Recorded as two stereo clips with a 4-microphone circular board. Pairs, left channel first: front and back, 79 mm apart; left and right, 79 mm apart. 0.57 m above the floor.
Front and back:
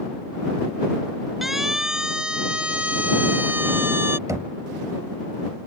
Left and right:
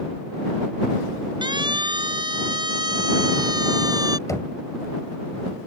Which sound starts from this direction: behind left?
Knocking, at 4.3 s.